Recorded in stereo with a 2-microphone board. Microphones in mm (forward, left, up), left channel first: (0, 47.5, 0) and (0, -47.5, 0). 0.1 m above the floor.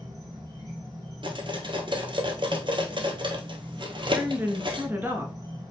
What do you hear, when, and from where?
0.0 s an insect: 40° right (ahead or behind), 3.5 m
1.2 s cutlery clinking: 60° right (ahead or behind), 1.4 m
4.1 s a woman speaking: 25° right (ahead or behind), 1.4 m